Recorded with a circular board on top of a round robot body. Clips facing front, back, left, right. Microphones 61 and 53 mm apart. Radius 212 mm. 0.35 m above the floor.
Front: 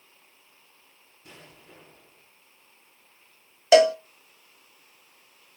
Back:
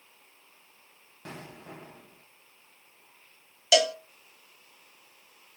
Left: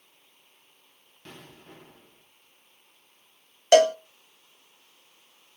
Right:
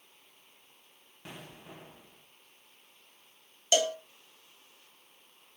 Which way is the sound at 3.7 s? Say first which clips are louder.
Front 8 dB, left 11 dB; 55° left.